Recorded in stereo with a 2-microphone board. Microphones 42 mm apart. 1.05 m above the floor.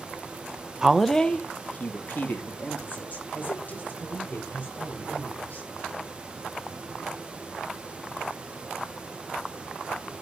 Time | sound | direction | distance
0.8 | a woman speaking | 15° right (ahead or behind) | 0.7 m